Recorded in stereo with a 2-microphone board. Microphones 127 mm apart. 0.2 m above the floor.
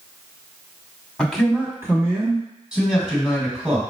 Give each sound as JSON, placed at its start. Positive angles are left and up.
{"t": 1.2, "sound": "a man speaking", "side_deg": 5, "distance_m": 1.1}
{"t": 2.7, "sound": "a man speaking", "side_deg": -5, "distance_m": 1.6}